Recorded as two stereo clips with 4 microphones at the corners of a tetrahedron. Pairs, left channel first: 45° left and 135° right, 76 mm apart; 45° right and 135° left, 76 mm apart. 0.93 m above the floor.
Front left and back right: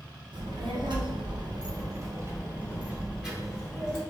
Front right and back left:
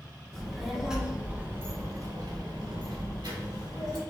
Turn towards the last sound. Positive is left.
turn(degrees=130)